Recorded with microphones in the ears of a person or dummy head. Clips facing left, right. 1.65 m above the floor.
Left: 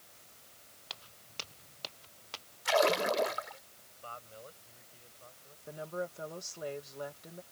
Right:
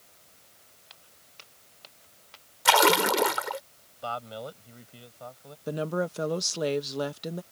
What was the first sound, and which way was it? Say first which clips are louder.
Footsteps: left 10 dB; 65° left (ahead or behind).